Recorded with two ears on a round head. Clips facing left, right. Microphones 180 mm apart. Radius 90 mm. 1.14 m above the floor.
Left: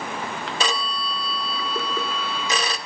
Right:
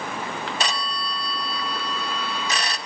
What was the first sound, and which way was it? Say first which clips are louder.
A phone ringing: left 2 dB; 75° left (ahead or behind).